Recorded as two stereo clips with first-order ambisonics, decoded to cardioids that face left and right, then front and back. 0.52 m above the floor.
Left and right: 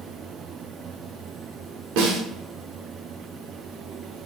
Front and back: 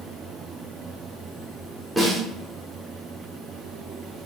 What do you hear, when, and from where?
2.0 s a snare drum: 95° right, 0.9 m